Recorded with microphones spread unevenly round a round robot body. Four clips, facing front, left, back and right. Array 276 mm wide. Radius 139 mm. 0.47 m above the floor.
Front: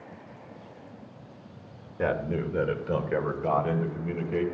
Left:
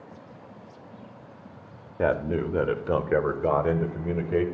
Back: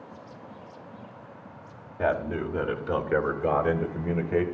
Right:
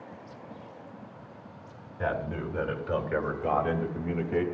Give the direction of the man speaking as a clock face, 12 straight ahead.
9 o'clock.